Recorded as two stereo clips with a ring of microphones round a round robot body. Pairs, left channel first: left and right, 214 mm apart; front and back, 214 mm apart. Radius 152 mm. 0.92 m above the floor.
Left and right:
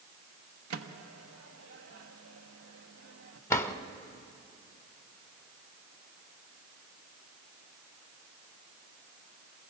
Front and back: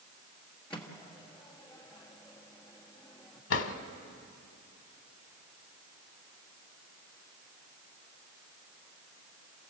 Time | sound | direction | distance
0.7 | a microwave | 85° right | 1.2 m
3.5 | a drawer | 10° left | 1.1 m